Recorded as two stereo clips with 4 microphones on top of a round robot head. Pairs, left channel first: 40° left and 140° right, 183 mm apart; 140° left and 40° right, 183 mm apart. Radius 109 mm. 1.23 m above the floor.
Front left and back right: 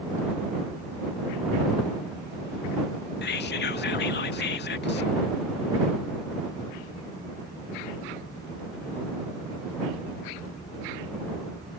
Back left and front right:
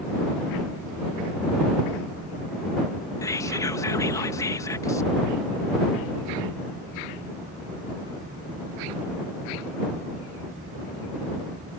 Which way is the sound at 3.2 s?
65° left.